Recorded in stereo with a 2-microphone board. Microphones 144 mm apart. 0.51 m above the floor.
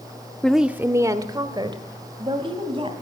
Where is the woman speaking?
5° left (ahead or behind), 0.8 m; by 2.9 s 40° right (ahead or behind), 3.5 m.